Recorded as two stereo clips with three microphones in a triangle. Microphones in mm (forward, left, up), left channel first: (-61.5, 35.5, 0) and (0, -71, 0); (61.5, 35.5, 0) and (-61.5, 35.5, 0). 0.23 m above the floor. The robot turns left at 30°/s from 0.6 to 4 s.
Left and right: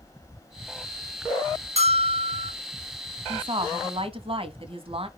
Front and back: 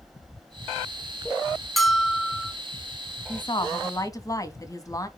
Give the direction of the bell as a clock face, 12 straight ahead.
3 o'clock.